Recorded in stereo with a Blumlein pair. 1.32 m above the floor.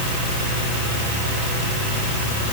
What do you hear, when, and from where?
Only background noise.